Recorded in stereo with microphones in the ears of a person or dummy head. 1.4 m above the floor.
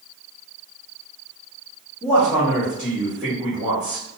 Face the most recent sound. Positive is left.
turn(degrees=-5)  # may be behind; listen again after turning